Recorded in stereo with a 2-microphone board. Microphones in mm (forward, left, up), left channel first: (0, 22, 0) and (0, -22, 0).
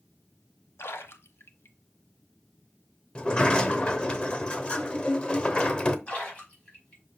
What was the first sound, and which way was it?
A splash, 80° left.